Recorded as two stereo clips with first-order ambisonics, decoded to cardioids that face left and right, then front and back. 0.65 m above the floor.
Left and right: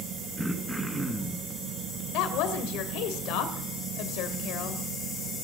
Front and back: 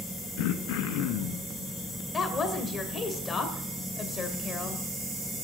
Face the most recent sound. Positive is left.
turn(degrees=70)